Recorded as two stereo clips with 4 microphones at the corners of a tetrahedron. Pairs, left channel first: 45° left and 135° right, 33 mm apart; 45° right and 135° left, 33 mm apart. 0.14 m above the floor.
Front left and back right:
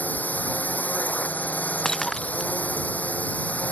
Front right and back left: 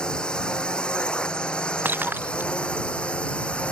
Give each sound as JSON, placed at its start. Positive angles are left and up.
{"t": 0.0, "sound": "a drone", "azimuth_deg": 20}
{"t": 1.9, "sound": "breaking glass", "azimuth_deg": 125}